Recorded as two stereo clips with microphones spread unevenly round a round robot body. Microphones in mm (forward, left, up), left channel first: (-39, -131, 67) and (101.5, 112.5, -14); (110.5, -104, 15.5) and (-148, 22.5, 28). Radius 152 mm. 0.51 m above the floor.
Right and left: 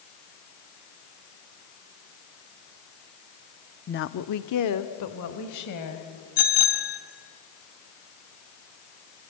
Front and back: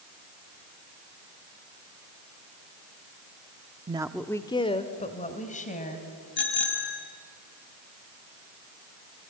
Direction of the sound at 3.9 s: 175° left.